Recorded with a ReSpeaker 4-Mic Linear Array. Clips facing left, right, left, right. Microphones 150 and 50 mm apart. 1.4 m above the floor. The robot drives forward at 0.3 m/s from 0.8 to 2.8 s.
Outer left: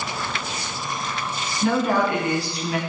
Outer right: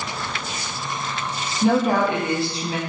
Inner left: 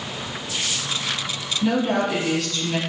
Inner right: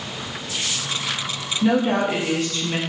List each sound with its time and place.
1.6 s a woman speaking: 20° right (ahead or behind), 1.1 m; by 2.8 s 25° right (ahead or behind), 0.8 m